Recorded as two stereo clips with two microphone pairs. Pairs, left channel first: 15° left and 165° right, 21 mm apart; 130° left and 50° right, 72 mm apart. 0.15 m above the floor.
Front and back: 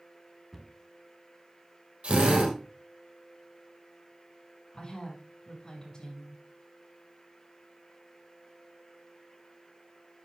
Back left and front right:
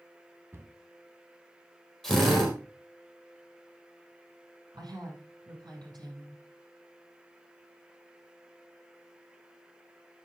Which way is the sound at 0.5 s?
70° right.